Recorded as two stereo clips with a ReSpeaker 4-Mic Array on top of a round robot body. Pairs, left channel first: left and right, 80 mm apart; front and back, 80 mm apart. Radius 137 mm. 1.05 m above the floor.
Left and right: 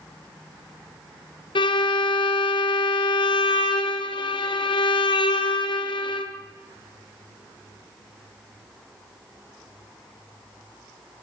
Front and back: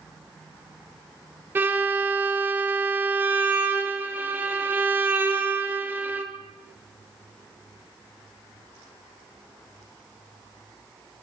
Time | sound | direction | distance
1.6 | a violin | 115° left | 1.6 m